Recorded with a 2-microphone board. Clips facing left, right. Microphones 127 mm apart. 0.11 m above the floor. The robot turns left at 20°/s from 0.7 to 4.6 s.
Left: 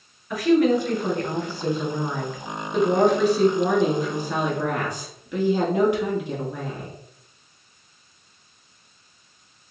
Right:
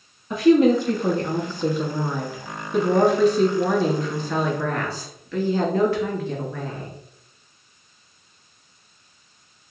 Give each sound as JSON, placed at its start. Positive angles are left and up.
{"t": 0.3, "sound": "a woman speaking", "azimuth_deg": -130, "distance_m": 1.3}